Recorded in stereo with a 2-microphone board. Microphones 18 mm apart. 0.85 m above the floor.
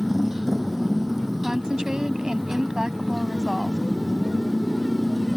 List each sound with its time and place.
0.0 s a motorcycle: 20° right (ahead or behind); by 5.4 s 5° right (ahead or behind)
1.4 s a woman speaking: 40° right (ahead or behind)